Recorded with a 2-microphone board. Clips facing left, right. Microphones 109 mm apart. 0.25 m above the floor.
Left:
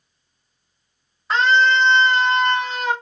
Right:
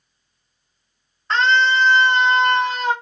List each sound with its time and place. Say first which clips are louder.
1.3 s a scream: left 1 dB; 10° left (ahead or behind), 1.2 m; by 2.9 s 35° right (ahead or behind), 1.4 m